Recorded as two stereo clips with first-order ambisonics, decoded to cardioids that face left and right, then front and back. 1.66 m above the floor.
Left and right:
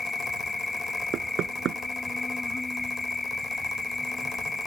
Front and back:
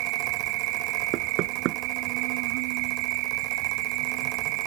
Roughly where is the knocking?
Behind right.